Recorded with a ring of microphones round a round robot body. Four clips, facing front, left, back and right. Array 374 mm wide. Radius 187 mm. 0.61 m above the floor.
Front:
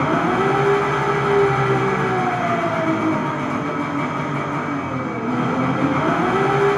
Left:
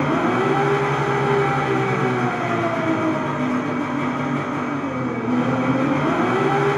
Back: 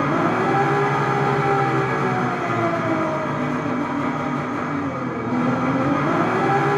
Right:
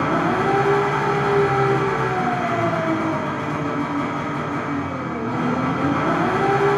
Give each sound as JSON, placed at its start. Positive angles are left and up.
{"t": 0.0, "sound": "an engine running", "azimuth_deg": -15, "distance_m": 1.7}